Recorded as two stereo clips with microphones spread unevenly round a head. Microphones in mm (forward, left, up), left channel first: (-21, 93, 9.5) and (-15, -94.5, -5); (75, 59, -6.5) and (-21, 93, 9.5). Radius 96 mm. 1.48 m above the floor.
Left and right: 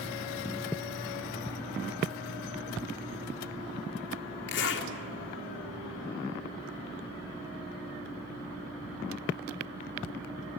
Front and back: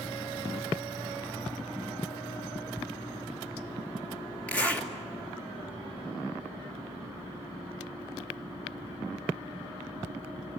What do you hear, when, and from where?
4.5 s a zipper: 55° left, 3 m